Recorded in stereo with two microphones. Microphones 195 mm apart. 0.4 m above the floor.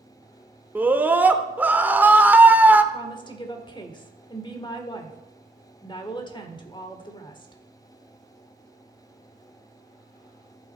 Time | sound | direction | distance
0.8 | a scream | 10° right (ahead or behind) | 0.8 m
2.9 | a woman speaking | 25° left (ahead or behind) | 1.2 m